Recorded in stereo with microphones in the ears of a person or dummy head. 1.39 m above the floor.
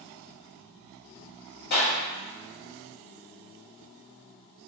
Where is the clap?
60° left (ahead or behind), 1.4 m.